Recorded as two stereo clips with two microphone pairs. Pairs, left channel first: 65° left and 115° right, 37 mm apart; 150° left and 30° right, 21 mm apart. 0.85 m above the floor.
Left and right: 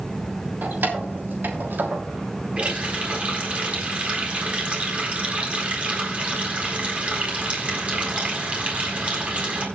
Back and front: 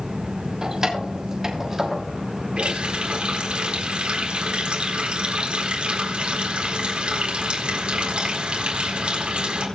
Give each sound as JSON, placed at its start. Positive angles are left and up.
{"t": 0.6, "sound": "keys jangling", "azimuth_deg": -85, "distance_m": 3.0}
{"t": 2.6, "sound": "a running tap", "azimuth_deg": -60, "distance_m": 4.0}